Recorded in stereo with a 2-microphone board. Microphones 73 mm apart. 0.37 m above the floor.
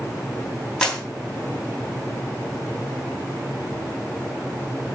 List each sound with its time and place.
0.8 s a clap: 10° left (ahead or behind), 2.5 m